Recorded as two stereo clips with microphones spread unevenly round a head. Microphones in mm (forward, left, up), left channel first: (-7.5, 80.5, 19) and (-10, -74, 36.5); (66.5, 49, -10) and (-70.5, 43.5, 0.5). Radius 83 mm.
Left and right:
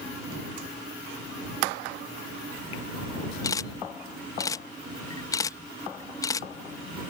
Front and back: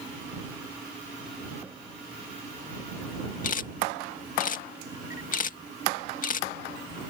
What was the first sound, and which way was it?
A camera shutter, 20° left.